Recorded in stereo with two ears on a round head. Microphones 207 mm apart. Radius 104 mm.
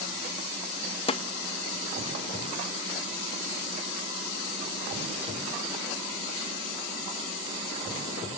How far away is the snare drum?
About 0.5 m.